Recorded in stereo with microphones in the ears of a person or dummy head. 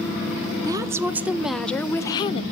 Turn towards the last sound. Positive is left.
turn(degrees=35)  # may be behind; listen again after turning